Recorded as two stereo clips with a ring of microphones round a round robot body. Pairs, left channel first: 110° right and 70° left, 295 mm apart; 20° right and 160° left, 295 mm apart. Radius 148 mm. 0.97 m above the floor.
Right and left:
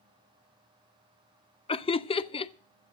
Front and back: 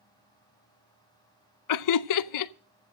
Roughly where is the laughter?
Ahead right.